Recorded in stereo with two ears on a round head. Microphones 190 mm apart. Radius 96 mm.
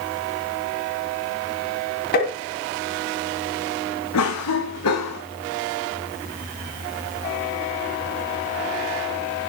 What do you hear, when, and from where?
2.1 s tapping: 50° left (ahead or behind), 3 m
4.1 s a cough: 80° left, 1.9 m